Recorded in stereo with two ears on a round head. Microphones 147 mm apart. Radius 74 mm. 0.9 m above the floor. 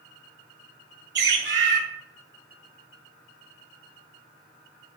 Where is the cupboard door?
I don't hear a cupboard door.